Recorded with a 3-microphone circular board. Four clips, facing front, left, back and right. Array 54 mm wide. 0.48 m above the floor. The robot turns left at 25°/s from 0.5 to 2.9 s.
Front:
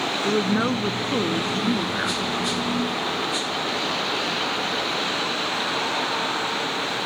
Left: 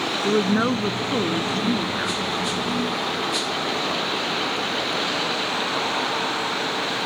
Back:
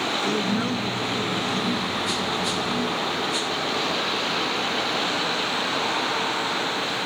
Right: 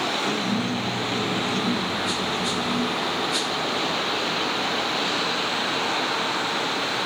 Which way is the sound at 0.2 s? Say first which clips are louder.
Left 5 dB, front 6 dB; 60° left.